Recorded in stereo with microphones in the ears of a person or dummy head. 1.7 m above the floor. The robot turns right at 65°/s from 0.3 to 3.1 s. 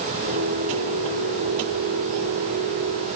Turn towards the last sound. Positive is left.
No sound to turn to.